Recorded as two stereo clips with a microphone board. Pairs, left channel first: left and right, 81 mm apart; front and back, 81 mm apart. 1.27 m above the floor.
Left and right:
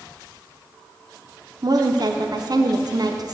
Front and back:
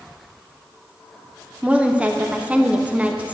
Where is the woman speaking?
110° right, 0.8 m.